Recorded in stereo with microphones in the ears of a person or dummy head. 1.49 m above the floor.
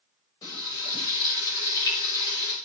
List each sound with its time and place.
0.4 s frying: 25° left (ahead or behind), 7.5 m